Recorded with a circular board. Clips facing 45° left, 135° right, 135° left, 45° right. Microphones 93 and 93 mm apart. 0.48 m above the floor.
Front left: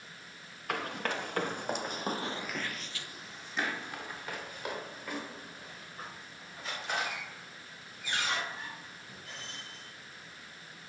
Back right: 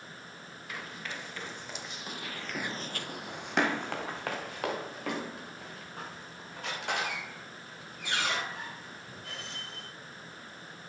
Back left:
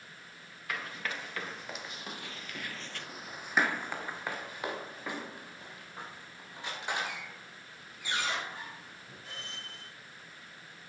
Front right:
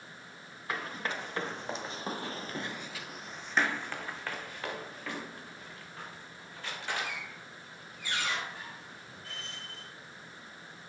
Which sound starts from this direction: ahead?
Running footsteps, at 0.7 s.